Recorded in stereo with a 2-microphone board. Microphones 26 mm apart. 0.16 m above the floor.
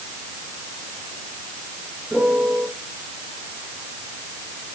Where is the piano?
35° right (ahead or behind), 8 m.